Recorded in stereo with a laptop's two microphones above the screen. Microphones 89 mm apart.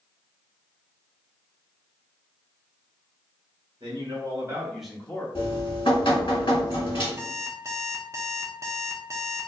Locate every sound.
3.8 s a man speaking: 55° right (ahead or behind), 1.3 m; by 5.2 s 25° left (ahead or behind), 1.0 m
5.3 s dripping: 65° left (ahead or behind), 1.4 m
7.2 s an alarm clock: 30° right (ahead or behind), 0.6 m